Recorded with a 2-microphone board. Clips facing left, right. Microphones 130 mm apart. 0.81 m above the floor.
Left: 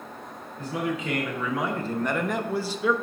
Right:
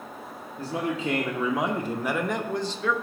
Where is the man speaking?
30° right (ahead or behind), 1.0 m; by 2.9 s 15° left (ahead or behind), 0.8 m.